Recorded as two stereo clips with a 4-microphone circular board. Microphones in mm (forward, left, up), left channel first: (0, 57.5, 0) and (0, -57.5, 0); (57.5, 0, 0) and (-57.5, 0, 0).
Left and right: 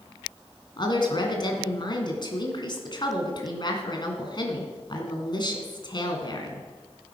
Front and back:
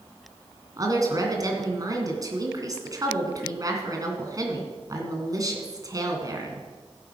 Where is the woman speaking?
130° left, 2.5 m.